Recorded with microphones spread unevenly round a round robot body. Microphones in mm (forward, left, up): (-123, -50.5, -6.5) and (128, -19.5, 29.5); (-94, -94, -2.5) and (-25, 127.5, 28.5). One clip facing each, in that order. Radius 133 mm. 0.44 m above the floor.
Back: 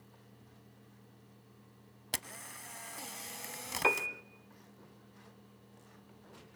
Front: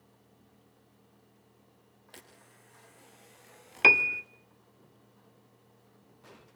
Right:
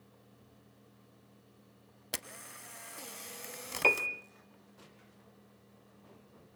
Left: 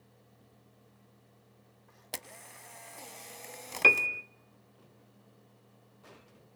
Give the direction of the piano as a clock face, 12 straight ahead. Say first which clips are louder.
Front 4 dB, left 1 dB; 12 o'clock.